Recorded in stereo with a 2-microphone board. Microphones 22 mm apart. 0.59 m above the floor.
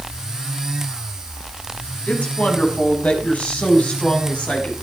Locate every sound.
2.1 s a woman speaking: 80° left, 5.5 m; by 4.7 s 65° left (ahead or behind), 5.5 m